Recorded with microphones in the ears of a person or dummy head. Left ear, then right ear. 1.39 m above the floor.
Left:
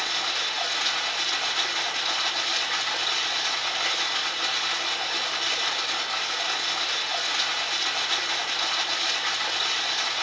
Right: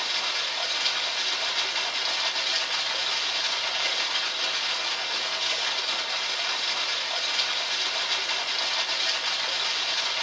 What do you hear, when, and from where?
0.0 s running water: 55° right (ahead or behind), 2.5 m